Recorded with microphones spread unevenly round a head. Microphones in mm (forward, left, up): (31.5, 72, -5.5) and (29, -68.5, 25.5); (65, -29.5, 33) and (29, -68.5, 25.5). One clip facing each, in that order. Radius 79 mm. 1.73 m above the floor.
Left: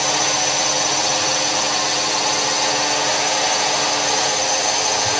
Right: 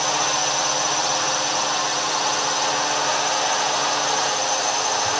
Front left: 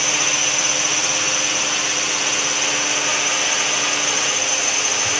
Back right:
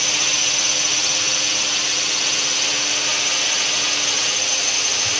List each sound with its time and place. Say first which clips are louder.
0.0 s a drone: left 2 dB, front left 2 dB; 95° left